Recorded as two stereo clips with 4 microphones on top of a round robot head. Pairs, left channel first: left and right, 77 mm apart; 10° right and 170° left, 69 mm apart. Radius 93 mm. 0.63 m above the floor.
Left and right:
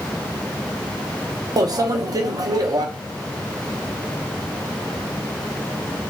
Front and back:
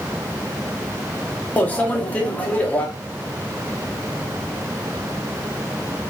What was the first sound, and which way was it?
A microwave, 75° right.